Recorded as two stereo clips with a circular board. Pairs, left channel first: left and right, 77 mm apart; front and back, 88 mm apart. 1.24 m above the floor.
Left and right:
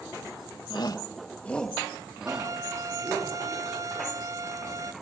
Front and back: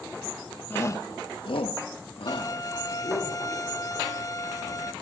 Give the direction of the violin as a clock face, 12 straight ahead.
2 o'clock.